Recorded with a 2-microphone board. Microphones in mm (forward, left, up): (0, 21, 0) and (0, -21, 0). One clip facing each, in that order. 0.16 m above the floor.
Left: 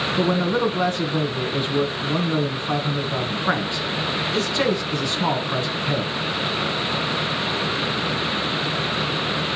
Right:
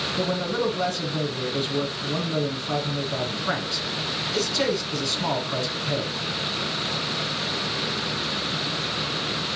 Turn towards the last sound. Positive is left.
turn(degrees=30)  # may be behind; listen again after turning